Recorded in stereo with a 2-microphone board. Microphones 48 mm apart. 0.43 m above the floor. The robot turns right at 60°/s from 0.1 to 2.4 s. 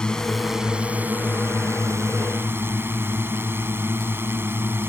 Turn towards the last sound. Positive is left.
turn(degrees=-60)